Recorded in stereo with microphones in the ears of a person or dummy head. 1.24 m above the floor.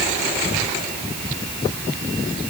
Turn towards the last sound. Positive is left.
No sound to turn to.